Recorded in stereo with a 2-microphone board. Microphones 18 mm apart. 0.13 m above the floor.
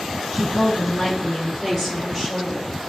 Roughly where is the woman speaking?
Left.